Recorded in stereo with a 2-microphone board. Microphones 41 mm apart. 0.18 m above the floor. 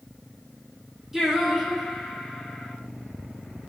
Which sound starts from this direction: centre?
Singing, at 1.1 s.